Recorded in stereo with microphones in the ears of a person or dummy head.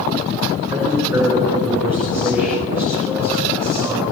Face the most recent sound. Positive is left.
turn(degrees=-10)  # may be behind; listen again after turning